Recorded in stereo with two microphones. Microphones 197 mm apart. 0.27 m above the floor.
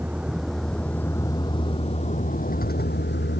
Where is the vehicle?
10° right (ahead or behind); by 3.4 s 65° left (ahead or behind).